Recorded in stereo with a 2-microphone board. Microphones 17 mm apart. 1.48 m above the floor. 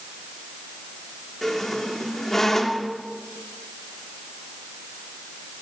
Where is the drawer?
No drawer in this recording.